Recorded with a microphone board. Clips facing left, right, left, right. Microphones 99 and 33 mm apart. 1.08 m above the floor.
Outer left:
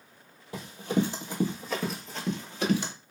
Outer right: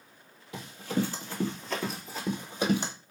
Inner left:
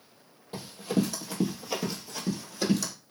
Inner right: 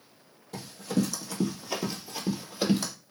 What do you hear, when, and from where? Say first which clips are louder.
0.5 s running footsteps: outer left 3 dB, inner left 1 dB; 30° left (ahead or behind), 1.4 m; by 2.9 s 25° right (ahead or behind), 1.2 m